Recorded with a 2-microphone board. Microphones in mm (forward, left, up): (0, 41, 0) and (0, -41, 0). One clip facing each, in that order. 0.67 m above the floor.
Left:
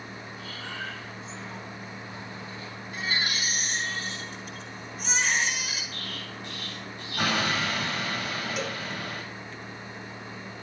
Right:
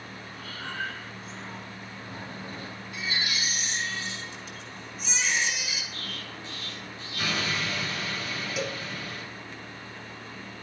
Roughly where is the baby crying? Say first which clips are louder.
Left 2 dB; left.